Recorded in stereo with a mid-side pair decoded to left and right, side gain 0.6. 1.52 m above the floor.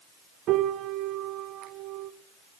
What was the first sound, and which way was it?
A piano, 60° right.